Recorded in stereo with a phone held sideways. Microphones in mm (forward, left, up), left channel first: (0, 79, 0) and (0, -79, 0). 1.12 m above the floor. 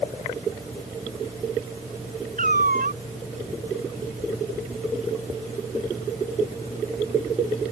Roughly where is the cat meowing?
Right.